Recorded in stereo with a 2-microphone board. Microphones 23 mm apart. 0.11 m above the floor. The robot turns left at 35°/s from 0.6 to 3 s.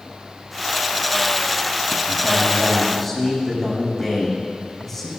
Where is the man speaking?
150° right, 7.5 m; by 5.1 s 175° left, 7.5 m.